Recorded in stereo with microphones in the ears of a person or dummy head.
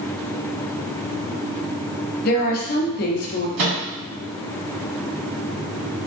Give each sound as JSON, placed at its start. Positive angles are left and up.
{"t": 2.2, "sound": "a woman speaking", "side_deg": 55, "distance_m": 0.7}
{"t": 3.6, "sound": "a microwave", "side_deg": -70, "distance_m": 1.4}